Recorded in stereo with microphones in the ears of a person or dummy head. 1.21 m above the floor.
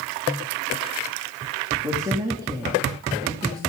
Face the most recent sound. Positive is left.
turn(degrees=-20)  # may be behind; listen again after turning